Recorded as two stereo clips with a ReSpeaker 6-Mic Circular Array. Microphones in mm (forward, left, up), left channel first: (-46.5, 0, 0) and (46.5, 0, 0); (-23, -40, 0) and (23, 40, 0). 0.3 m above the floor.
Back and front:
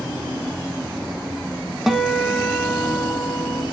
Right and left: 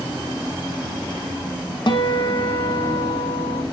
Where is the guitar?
90° right, 0.9 m.